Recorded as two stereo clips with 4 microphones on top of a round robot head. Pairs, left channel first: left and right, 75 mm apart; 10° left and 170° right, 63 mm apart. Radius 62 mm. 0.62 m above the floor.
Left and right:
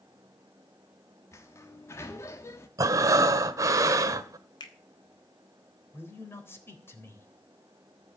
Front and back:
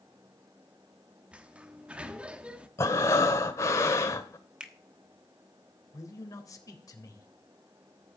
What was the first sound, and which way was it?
A sliding door, 125° left.